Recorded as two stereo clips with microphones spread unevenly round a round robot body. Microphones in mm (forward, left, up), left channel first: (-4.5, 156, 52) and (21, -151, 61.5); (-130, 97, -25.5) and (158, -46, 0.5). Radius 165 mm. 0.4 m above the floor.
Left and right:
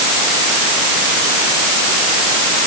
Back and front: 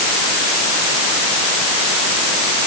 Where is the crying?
No crying in this recording.